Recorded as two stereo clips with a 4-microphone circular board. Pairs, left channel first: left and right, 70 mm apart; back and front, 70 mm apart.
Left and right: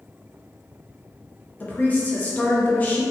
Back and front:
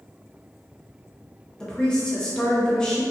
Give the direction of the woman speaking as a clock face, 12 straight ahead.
8 o'clock.